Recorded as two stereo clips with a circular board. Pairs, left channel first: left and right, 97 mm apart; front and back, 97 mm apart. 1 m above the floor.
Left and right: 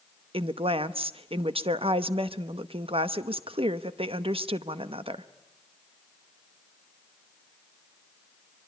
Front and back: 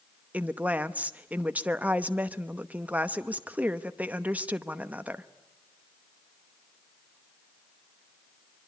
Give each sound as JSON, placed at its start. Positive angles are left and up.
{"t": 0.3, "sound": "a woman speaking", "azimuth_deg": -105, "distance_m": 0.9}